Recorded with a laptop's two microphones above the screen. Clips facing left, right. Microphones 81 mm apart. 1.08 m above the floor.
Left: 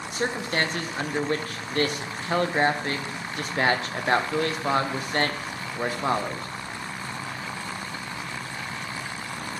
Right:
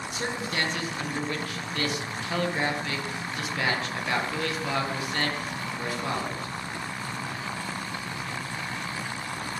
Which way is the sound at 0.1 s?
40° left (ahead or behind).